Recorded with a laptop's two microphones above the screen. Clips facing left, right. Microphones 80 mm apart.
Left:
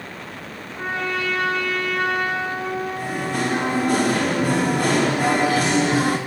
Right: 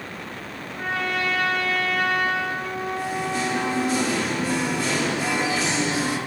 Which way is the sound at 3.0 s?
55° left (ahead or behind).